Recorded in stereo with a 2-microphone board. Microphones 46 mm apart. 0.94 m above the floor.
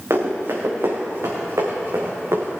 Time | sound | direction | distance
0.1 | running footsteps | 75° right (ahead or behind) | 4.5 m